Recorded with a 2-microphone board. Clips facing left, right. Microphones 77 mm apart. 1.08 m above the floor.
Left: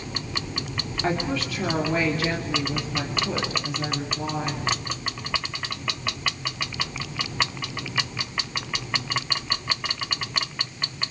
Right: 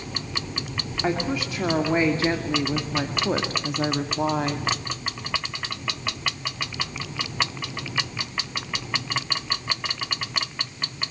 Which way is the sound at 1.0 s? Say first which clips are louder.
Right 1 dB; 10° right (ahead or behind).